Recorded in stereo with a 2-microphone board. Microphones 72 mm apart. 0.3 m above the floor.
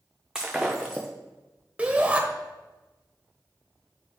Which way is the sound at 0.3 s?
10° right (ahead or behind).